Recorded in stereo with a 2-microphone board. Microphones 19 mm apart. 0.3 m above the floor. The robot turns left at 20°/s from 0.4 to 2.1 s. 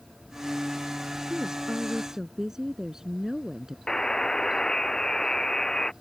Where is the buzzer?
35° left (ahead or behind).